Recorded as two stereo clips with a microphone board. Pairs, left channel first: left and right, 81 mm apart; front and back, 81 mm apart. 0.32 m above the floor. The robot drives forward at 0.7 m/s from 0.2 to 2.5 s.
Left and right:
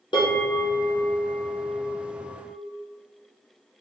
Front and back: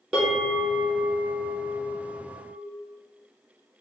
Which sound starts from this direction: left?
A bell, at 0.1 s.